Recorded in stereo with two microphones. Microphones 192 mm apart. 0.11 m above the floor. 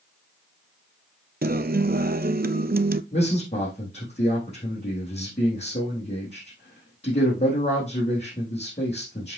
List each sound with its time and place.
1.4 s a guitar: 55° right (ahead or behind), 0.5 m
3.1 s a man speaking: 35° left (ahead or behind), 4.5 m